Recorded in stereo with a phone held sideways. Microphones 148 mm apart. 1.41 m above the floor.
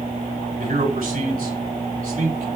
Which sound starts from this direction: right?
A man speaking, at 0.6 s.